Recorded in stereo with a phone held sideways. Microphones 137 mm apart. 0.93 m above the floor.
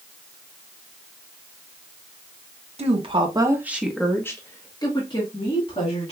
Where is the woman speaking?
50° right (ahead or behind), 0.9 m; by 6.1 s 45° left (ahead or behind), 2 m.